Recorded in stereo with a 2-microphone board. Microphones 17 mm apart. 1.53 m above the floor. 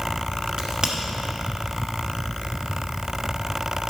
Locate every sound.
0.6 s a crack: 45° right (ahead or behind), 1.2 m